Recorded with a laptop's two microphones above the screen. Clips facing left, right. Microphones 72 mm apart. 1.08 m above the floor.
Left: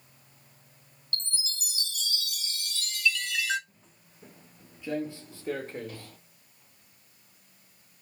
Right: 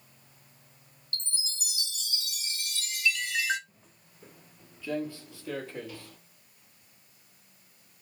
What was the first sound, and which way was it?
A chime, 10° right (ahead or behind).